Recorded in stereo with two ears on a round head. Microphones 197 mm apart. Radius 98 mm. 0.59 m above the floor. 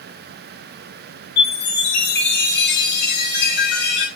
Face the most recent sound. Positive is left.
turn(degrees=50)  # may be behind; listen again after turning